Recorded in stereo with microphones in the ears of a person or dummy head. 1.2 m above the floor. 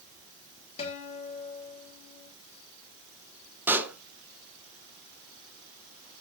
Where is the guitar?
30° left (ahead or behind), 3.5 m.